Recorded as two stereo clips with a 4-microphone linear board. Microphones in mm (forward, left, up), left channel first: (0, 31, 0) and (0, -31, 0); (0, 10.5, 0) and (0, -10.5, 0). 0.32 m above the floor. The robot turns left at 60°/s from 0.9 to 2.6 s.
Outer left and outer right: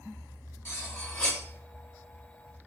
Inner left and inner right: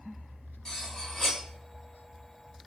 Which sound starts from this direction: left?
Cutlery clinking, at 0.7 s.